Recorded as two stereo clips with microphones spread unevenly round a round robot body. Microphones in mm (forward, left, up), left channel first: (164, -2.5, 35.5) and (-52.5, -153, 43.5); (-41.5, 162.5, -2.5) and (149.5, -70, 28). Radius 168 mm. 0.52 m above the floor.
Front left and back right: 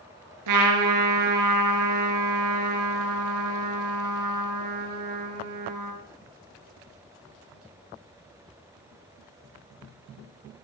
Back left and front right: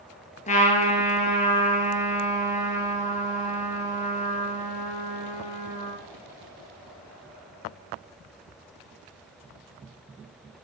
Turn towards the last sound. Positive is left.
turn(degrees=-160)